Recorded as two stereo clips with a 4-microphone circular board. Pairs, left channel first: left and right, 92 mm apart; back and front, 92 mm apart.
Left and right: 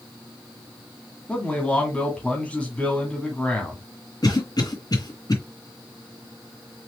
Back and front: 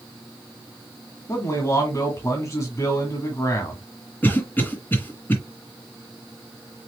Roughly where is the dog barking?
No dog barking in this recording.